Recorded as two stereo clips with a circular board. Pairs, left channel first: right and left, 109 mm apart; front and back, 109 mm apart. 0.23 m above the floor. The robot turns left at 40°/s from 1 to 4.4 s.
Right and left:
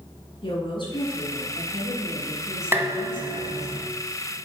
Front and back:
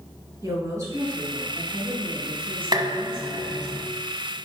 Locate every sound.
0.4 s a woman speaking: 120° right, 3 m; by 3.7 s 130° left, 3 m
2.7 s dishes clattering: 155° left, 1.0 m; by 3.9 s 105° left, 1.0 m